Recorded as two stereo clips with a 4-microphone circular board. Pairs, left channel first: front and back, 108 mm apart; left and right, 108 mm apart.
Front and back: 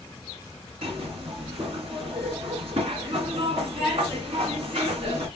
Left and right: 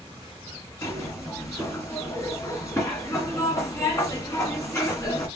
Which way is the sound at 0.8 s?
155° left.